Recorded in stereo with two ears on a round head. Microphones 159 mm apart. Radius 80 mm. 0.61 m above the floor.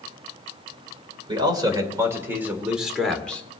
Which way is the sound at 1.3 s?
25° right (ahead or behind).